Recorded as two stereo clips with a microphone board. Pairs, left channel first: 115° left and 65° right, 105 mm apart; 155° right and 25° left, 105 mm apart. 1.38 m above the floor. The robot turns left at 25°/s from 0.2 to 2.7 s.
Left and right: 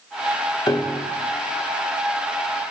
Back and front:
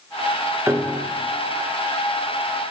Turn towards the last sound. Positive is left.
turn(degrees=30)